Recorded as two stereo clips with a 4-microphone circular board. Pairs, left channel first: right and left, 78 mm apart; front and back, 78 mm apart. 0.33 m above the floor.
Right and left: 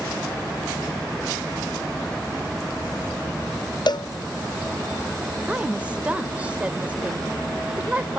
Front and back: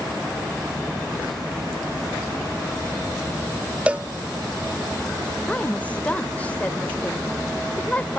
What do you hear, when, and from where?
3.9 s a cowbell: 110° right, 0.6 m
5.5 s a woman speaking: 45° left, 1.5 m